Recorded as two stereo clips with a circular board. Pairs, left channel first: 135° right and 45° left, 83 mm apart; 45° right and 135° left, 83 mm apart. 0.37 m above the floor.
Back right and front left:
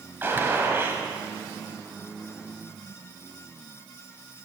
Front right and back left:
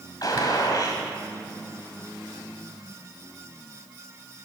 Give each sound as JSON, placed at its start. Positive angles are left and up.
{"t": 0.2, "sound": "a gunshot", "azimuth_deg": -15, "distance_m": 1.6}